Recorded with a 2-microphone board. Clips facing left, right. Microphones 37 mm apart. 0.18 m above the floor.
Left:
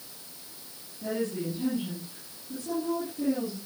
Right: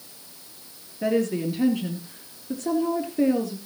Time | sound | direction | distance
1.0 | a woman speaking | 70° right (ahead or behind) | 3.5 m